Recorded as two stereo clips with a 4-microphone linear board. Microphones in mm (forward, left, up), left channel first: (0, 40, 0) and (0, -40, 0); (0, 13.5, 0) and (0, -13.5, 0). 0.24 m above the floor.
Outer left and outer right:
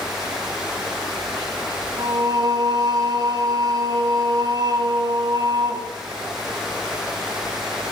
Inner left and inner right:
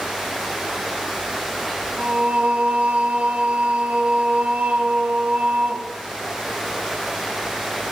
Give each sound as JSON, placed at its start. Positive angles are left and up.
{"t": 2.0, "sound": "singing", "side_deg": -55, "distance_m": 2.0}